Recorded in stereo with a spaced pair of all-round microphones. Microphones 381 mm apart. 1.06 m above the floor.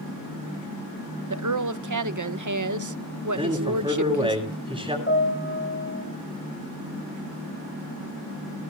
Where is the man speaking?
10° right (ahead or behind), 7.5 m.